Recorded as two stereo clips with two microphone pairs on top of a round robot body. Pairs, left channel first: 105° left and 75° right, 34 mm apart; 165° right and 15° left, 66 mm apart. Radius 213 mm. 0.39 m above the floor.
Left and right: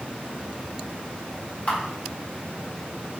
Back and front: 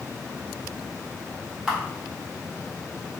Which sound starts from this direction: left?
A camera shutter, at 1.7 s.